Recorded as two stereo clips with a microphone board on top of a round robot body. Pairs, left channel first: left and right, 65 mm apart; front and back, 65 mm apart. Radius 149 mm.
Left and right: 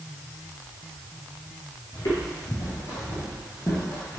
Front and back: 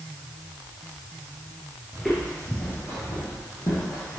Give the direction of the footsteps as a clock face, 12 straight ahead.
9 o'clock.